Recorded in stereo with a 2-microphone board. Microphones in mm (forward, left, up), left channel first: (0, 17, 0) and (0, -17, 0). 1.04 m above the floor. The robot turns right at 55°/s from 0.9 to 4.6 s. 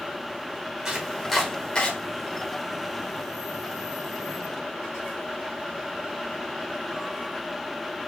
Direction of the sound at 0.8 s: 15° right (ahead or behind).